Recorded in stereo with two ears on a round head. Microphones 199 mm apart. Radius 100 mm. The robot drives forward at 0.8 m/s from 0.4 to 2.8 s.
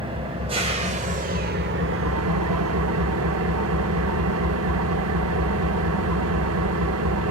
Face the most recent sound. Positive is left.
turn(degrees=-70)  # may be behind; listen again after turning